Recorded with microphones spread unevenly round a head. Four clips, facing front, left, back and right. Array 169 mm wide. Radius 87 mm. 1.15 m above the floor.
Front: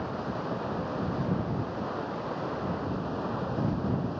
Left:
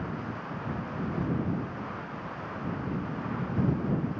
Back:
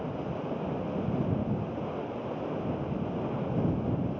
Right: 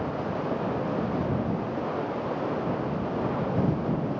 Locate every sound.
0.0 s running water: 95° right